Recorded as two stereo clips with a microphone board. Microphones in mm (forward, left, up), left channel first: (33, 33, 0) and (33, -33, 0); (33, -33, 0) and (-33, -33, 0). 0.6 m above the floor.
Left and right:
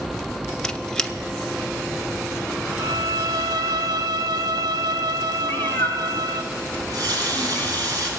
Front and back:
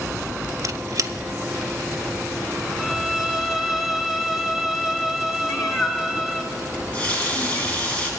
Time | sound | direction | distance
0.6 | a squeak | 170° left | 0.5 m
2.8 | a violin | 95° right | 0.7 m
5.4 | a cat meowing | 30° left | 1.6 m
6.7 | a running tap | 70° right | 3.5 m